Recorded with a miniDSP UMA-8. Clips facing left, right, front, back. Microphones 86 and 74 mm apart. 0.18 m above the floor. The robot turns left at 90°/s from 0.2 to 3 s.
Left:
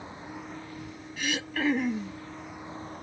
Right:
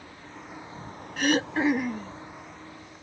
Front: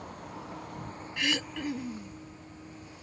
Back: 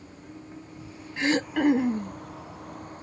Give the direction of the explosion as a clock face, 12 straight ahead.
I don't hear an explosion.